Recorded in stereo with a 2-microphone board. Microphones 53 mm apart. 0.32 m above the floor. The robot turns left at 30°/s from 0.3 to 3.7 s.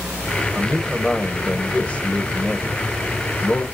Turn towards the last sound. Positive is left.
turn(degrees=75)